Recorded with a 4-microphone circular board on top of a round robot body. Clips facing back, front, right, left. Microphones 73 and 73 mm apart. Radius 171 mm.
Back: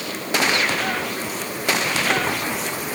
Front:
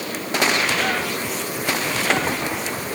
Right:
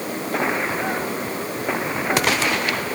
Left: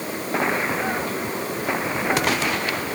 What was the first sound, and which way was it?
Only background noise.